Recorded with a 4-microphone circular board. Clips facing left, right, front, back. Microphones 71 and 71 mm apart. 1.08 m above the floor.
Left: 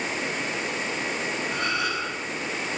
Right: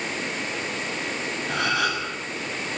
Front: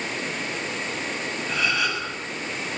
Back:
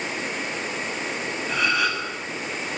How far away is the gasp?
About 6.5 m.